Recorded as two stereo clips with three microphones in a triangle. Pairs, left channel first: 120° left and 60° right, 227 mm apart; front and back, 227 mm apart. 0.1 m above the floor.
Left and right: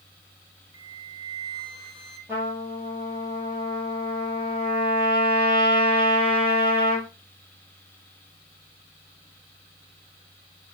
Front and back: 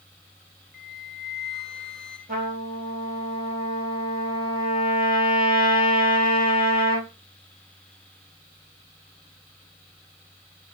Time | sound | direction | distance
0.7 | a flute | 85° right | 1.7 m
2.3 | a trumpet | 140° right | 3 m